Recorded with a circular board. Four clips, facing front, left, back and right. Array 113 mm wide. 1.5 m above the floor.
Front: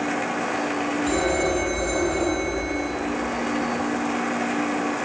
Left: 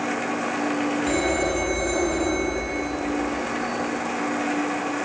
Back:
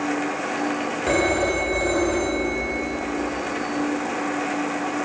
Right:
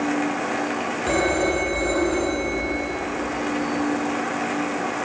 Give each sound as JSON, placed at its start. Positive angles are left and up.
{"t": 1.1, "sound": "a phone ringing", "azimuth_deg": -155, "distance_m": 5.0}